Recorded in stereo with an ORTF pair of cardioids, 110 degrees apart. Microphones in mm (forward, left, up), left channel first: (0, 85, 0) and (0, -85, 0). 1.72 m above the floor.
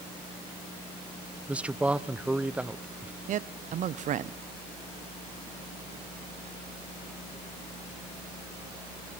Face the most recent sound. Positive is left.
turn(degrees=-50)